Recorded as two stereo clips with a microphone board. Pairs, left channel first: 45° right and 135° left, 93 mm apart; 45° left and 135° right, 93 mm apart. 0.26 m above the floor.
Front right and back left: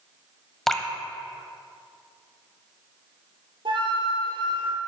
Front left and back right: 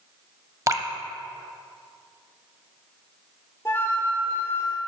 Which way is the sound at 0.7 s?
130° right.